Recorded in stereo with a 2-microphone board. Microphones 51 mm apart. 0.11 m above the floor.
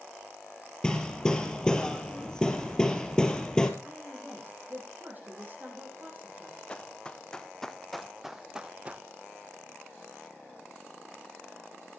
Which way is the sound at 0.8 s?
15° left (ahead or behind).